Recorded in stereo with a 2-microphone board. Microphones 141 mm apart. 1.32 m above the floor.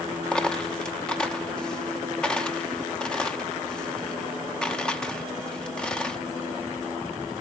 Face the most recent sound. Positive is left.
turn(degrees=5)  # may be behind; listen again after turning